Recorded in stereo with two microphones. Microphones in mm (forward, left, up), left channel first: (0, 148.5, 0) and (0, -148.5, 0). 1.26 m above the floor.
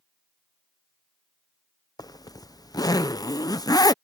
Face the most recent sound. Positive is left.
turn(degrees=15)  # may be behind; listen again after turning